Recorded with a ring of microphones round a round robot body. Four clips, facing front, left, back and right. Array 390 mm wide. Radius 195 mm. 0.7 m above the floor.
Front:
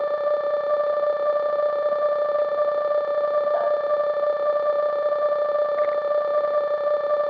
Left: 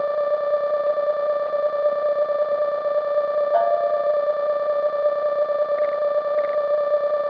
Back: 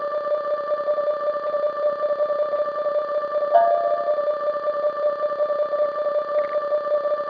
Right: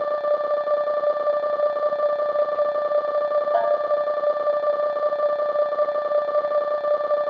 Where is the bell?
165° left, 3.5 m.